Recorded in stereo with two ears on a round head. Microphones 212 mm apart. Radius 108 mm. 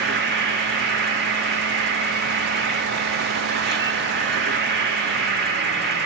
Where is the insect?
45° right (ahead or behind), 1.7 m.